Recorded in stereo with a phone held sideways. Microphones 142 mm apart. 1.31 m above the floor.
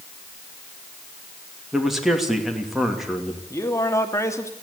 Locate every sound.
1.7 s a man speaking: centre (ahead or behind), 2.5 m
3.5 s a man speaking: 20° left (ahead or behind), 2.5 m